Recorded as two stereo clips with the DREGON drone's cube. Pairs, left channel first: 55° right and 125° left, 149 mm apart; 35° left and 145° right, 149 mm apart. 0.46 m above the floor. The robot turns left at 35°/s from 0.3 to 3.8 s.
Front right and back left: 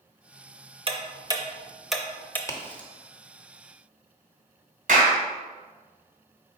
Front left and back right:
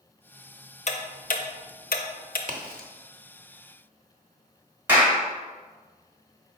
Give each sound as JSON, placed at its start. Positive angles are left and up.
{"t": 0.9, "sound": "ticking", "azimuth_deg": 75, "distance_m": 0.5}
{"t": 2.5, "sound": "a crack", "azimuth_deg": -125, "distance_m": 0.7}
{"t": 4.9, "sound": "a clap", "azimuth_deg": 140, "distance_m": 1.3}